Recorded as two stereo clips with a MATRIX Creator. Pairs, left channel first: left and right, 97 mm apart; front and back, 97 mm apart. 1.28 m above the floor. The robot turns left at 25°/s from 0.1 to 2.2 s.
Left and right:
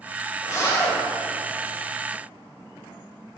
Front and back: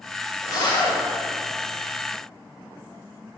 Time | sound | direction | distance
0.4 | a zipper | 45° left | 1.7 m